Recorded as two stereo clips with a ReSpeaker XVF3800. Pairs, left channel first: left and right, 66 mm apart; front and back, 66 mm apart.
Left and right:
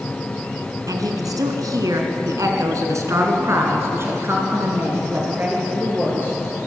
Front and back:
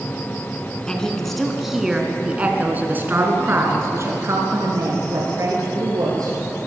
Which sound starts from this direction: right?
A woman speaking, at 0.9 s.